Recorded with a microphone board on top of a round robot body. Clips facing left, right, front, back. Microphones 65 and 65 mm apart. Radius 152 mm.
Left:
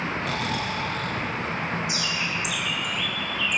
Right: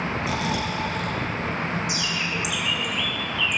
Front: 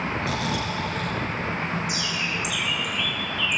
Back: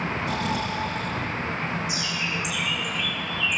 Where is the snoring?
10° right, 5 m.